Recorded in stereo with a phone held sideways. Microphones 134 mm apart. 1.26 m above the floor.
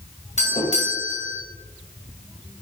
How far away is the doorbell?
About 2 m.